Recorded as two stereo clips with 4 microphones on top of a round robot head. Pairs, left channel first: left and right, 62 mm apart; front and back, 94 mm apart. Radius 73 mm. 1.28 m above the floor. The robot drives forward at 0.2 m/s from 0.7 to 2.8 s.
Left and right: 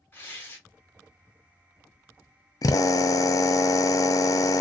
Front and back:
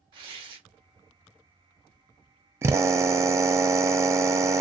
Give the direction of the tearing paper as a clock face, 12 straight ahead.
7 o'clock.